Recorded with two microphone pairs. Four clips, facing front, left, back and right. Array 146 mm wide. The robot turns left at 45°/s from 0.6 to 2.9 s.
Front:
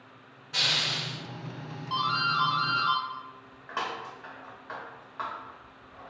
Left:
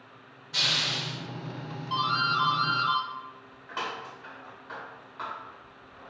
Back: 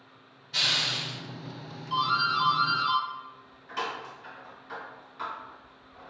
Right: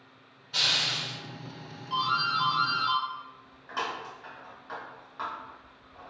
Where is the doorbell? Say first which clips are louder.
Left 1 dB, back 2 dB; 30° left, 1.0 m; by 6.1 s 15° right, 1.0 m.